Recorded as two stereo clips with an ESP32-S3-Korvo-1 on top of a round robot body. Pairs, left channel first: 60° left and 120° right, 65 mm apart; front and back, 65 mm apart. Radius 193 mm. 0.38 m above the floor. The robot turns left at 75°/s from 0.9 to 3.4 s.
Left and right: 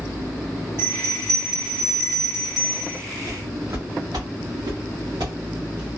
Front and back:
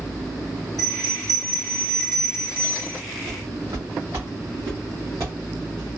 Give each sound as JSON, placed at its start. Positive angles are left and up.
{"t": 0.8, "sound": "a bell", "azimuth_deg": 15, "distance_m": 2.0}
{"t": 3.3, "sound": "footsteps", "azimuth_deg": -145, "distance_m": 2.5}